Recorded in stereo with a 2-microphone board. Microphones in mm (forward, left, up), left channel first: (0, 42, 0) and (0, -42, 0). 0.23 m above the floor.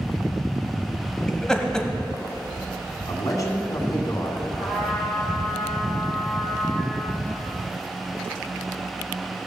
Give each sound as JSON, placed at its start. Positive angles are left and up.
{"t": 1.3, "sound": "laughter", "side_deg": 10, "distance_m": 1.2}
{"t": 3.1, "sound": "a man speaking", "side_deg": 45, "distance_m": 2.5}
{"t": 4.6, "sound": "a trumpet", "side_deg": -5, "distance_m": 4.0}